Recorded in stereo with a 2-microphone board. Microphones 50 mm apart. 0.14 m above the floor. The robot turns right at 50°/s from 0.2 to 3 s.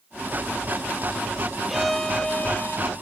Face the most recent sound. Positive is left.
turn(degrees=60)